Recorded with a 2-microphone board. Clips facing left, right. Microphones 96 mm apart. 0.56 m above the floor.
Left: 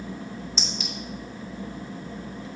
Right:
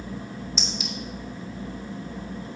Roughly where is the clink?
Centre.